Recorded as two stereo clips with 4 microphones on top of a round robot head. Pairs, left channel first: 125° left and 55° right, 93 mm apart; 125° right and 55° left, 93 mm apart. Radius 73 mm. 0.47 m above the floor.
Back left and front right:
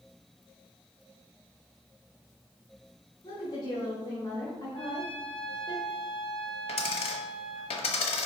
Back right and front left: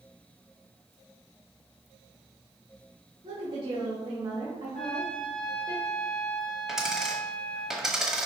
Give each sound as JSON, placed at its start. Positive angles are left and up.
{"t": 3.2, "sound": "a woman speaking", "azimuth_deg": 85, "distance_m": 1.8}
{"t": 4.7, "sound": "a trumpet", "azimuth_deg": 155, "distance_m": 1.6}
{"t": 6.7, "sound": "a dropped coin", "azimuth_deg": 140, "distance_m": 1.0}